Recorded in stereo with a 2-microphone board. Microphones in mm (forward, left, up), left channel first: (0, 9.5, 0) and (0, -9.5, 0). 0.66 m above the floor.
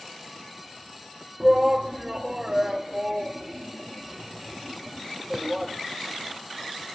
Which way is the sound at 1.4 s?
25° right (ahead or behind).